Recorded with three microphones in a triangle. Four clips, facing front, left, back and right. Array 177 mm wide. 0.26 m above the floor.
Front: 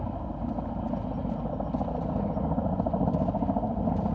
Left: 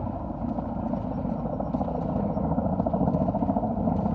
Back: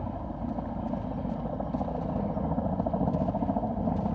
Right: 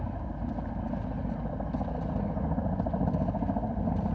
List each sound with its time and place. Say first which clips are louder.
0.0 s a helicopter: left 5 dB, front 1 dB; 90° left